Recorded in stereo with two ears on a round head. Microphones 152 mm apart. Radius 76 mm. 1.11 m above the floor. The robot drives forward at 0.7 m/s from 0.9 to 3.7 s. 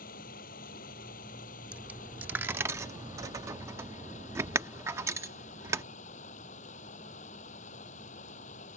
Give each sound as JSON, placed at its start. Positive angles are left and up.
{"t": 0.0, "sound": "running water", "side_deg": 55}
{"t": 1.7, "sound": "a dropped coin", "side_deg": -10}